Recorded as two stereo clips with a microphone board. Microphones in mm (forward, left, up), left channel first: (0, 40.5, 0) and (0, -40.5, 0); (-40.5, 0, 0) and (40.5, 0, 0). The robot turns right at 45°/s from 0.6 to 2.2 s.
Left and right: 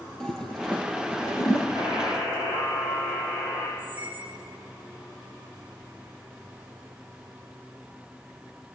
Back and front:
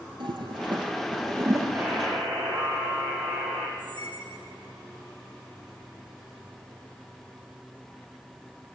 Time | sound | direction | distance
0.2 | a toilet flushing | 5° left | 3 m
1.8 | a buzzer | 75° left | 7 m
3.8 | a squeak | 155° right | 6.5 m